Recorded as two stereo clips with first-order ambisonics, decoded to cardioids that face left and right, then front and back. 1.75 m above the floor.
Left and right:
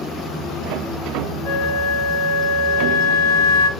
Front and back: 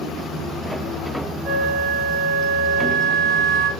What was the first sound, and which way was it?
A flute, 105° left.